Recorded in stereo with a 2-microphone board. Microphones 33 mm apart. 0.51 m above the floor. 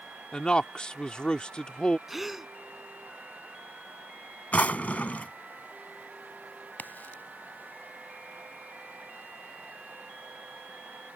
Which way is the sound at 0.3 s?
30° left (ahead or behind).